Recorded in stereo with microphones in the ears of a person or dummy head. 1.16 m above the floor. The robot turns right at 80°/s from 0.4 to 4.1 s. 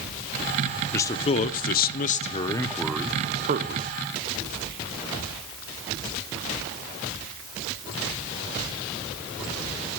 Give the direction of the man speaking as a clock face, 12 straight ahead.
11 o'clock.